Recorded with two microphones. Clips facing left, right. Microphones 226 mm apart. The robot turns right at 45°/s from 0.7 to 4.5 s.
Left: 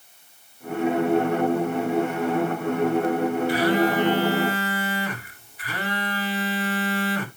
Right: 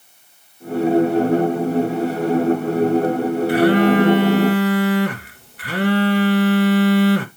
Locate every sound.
3.5 s a phone buzzing: 120° right, 1.0 m; by 7.3 s 75° right, 1.0 m